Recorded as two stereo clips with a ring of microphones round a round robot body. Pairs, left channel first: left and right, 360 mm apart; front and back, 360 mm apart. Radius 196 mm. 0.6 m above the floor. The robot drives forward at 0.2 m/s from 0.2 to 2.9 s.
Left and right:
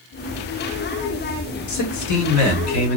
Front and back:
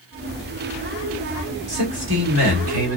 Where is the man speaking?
120° left, 1.5 m; by 3.0 s 130° left, 1.6 m.